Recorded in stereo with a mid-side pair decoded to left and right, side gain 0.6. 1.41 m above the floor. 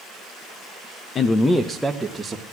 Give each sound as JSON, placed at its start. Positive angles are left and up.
{"t": 1.1, "sound": "a man speaking", "azimuth_deg": 40, "distance_m": 1.0}